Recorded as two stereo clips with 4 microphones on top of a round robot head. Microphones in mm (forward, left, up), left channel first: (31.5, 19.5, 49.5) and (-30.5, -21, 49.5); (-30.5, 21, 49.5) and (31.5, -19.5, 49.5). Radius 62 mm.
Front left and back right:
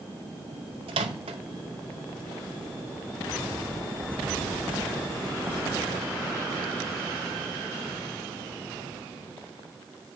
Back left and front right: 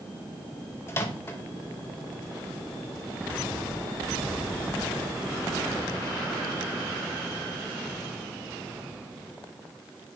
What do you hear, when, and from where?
0.9 s a microwave: 155° right, 0.8 m